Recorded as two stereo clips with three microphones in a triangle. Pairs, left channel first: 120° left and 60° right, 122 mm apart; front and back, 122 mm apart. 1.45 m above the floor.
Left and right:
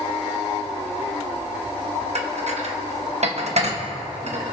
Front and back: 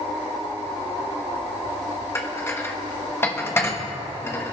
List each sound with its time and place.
2.1 s dishes clattering: 70° right, 1.2 m